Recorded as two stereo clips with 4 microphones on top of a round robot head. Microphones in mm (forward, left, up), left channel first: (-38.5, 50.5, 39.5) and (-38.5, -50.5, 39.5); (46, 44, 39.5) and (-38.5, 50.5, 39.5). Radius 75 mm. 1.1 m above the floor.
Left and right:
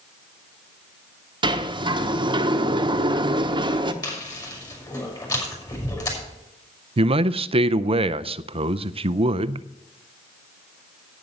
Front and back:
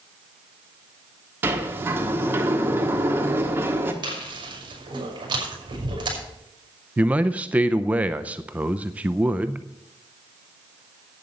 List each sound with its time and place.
1.4 s a sliding door: 120° right, 1.1 m
4.0 s chewing: 145° left, 5.5 m
7.0 s a man speaking: 110° right, 0.5 m